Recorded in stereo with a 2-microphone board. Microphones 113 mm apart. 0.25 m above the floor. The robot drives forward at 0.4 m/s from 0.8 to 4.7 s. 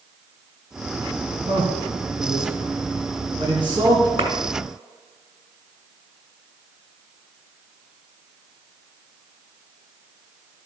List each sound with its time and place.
1.5 s a man speaking: 55° right (ahead or behind), 2 m; by 4.1 s 40° right (ahead or behind), 2.5 m
4.2 s a clap: 60° right (ahead or behind), 2 m